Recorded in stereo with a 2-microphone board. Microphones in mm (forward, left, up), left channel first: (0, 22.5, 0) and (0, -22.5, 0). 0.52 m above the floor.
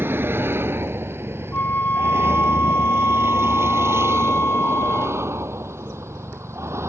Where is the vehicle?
55° right (ahead or behind); by 6.9 s 75° right (ahead or behind).